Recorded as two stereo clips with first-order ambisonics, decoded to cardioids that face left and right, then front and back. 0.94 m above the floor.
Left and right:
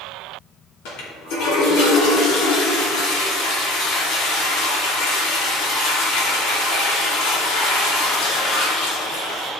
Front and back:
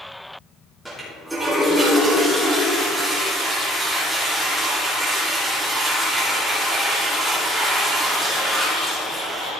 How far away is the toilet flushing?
About 2.5 m.